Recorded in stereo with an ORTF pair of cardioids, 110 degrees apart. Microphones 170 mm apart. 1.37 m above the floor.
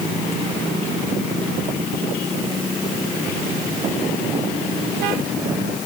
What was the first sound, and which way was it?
Only background noise.